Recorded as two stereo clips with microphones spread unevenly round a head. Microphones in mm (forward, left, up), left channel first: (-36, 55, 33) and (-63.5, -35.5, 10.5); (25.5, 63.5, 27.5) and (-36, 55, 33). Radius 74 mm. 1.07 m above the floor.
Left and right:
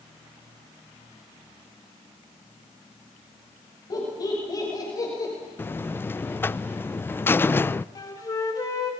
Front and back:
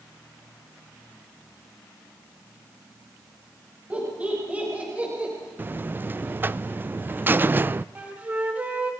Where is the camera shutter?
No camera shutter in this recording.